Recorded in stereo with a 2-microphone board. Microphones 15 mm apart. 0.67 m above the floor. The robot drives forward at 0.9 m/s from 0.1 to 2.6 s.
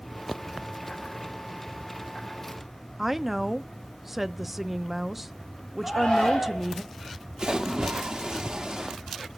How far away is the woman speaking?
About 0.5 m.